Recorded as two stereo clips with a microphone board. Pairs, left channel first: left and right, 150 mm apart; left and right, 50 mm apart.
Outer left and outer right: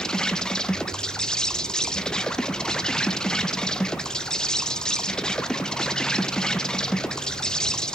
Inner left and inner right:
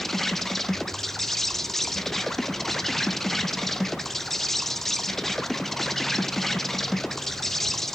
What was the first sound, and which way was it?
An insect, 5° left (ahead or behind).